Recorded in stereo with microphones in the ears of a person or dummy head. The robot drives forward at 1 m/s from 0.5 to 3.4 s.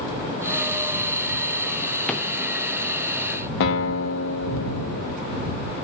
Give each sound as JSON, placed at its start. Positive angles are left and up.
{"t": 2.1, "sound": "a drawer", "side_deg": 0, "distance_m": 0.7}
{"t": 3.6, "sound": "a guitar", "side_deg": 70, "distance_m": 1.0}